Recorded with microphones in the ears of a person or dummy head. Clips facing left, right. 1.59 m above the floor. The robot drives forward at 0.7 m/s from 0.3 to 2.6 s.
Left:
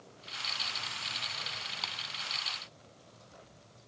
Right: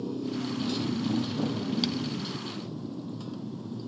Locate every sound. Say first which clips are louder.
0.0 s a motorcycle: right 22 dB; 85° right; by 3.9 s 80° right
1.8 s a clap: right 19 dB; 10° right (ahead or behind)